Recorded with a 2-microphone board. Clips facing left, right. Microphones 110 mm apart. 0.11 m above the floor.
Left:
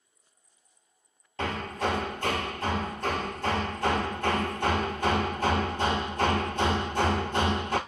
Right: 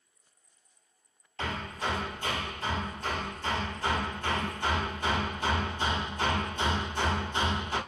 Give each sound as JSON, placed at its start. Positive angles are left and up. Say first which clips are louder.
{"t": 1.4, "sound": "hammering", "louder": "left 4 dB", "side_deg": 60, "distance_m": 0.8}